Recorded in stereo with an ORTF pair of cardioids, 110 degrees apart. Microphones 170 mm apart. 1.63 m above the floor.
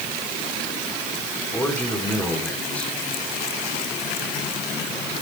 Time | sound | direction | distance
1.5 | a man speaking | 10° left | 5 m